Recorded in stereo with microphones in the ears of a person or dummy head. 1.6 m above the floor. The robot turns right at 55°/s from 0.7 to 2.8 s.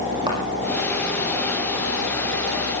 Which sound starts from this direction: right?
A thud, at 0.3 s.